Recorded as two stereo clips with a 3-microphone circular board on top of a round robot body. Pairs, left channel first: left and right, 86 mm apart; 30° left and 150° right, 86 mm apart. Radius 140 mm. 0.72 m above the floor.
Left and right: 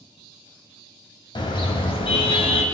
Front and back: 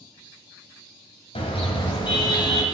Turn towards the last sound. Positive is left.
turn(degrees=75)